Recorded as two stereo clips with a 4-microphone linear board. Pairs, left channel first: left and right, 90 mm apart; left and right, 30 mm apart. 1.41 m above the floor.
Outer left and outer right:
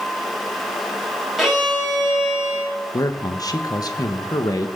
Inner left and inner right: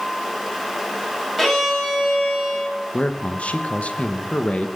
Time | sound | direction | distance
1.4 | a violin | centre (ahead or behind) | 5 m
2.9 | a man speaking | 45° left (ahead or behind) | 1.5 m